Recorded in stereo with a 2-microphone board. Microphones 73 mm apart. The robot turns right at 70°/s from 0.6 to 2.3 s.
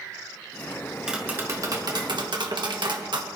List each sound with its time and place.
1.1 s tapping: 170° right, 1.6 m; by 3.3 s 85° right, 1.6 m